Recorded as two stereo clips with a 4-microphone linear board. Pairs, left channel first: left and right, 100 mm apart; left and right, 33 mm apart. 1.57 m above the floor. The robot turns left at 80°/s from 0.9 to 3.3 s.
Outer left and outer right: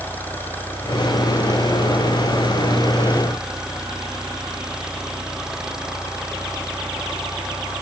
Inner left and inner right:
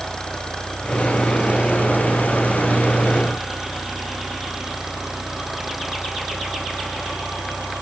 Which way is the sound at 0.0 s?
20° left.